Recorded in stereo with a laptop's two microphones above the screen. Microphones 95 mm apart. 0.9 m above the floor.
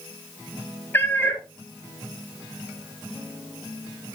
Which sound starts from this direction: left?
A cat meowing, at 0.9 s.